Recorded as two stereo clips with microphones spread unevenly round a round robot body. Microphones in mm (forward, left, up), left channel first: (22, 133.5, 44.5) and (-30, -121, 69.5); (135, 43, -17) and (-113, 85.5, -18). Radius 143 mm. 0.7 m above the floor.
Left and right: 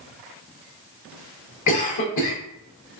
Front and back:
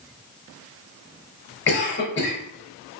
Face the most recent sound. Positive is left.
turn(degrees=35)